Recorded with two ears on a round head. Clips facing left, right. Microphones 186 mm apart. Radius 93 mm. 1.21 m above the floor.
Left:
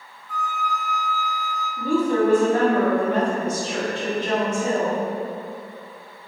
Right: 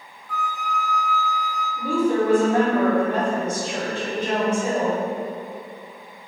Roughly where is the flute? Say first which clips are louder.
Even; right.